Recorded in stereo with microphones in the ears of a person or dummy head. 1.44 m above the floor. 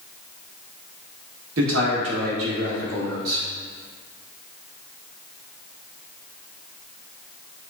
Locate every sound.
1.6 s a man speaking: 70° right (ahead or behind), 0.9 m